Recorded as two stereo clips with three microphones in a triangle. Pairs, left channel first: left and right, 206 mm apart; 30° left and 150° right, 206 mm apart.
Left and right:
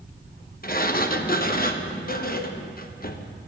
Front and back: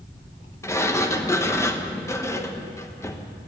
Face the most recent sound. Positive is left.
turn(degrees=100)